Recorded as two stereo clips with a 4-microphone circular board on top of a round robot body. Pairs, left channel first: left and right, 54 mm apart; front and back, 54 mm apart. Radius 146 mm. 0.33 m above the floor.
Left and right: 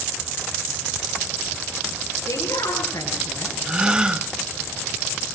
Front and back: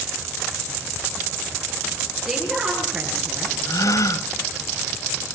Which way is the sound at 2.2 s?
85° left.